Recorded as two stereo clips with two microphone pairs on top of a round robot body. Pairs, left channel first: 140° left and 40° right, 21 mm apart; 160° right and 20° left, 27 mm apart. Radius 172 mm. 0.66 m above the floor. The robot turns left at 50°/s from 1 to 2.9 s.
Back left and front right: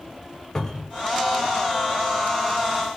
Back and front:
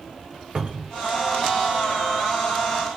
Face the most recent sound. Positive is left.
turn(degrees=-20)